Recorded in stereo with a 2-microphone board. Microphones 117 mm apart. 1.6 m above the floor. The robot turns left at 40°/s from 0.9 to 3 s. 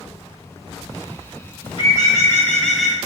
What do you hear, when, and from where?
1.6 s a bird: 50° left, 0.9 m; by 3.0 s 5° right, 0.9 m